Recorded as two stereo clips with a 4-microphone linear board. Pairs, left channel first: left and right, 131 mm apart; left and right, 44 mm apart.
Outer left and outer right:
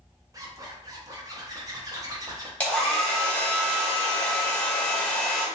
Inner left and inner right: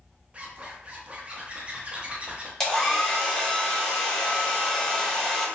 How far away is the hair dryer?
About 0.9 m.